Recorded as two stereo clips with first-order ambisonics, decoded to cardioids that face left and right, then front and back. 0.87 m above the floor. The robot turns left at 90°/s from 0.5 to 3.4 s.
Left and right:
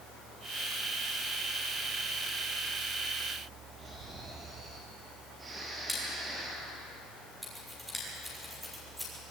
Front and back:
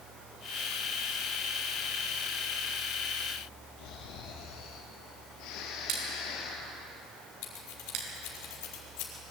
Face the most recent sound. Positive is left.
turn(degrees=-5)